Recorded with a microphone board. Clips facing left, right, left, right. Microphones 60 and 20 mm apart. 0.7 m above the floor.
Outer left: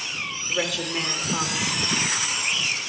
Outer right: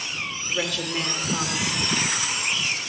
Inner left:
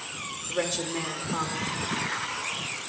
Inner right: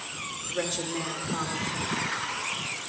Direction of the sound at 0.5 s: 5° left (ahead or behind).